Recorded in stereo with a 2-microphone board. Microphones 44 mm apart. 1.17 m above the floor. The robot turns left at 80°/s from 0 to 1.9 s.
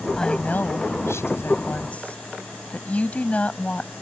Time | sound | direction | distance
0.2 | a woman speaking | 170° left | ?